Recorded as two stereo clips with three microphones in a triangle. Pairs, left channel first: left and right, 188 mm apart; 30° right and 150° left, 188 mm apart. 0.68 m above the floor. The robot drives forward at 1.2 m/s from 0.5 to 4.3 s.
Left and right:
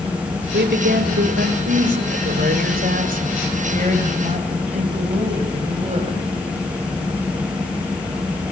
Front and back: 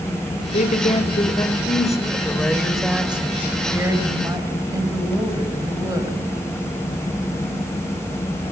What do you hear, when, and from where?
0.5 s a woman speaking: 70° right, 3.5 m; by 6.2 s 140° right, 4.5 m